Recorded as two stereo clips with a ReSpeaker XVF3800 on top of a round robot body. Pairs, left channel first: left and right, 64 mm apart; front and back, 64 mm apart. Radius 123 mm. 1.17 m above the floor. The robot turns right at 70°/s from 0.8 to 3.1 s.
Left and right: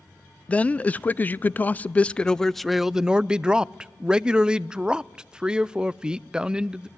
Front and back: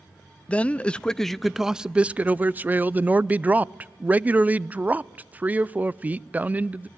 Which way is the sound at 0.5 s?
50° left.